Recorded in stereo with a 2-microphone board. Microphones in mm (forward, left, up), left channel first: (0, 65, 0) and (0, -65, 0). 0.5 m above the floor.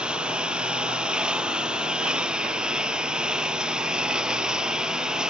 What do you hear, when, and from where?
0.0 s a lawn mower: 10° right (ahead or behind); by 5.3 s 5° right (ahead or behind)